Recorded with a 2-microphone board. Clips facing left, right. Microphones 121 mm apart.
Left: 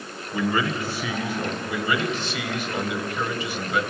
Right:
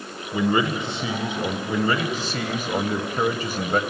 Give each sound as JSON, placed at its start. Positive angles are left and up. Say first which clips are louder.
{"t": 0.3, "sound": "a man speaking", "louder": "right 3 dB", "side_deg": -20, "distance_m": 1.2}
{"t": 1.7, "sound": "a man speaking", "louder": "right 2 dB", "side_deg": -40, "distance_m": 1.6}